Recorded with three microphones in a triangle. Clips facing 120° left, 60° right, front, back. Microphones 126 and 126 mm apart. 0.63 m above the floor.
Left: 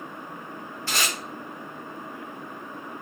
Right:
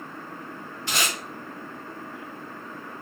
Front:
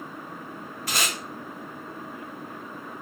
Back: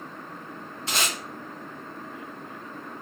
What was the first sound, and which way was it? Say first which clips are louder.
Tape being pulled: right 1 dB, even; 125° right.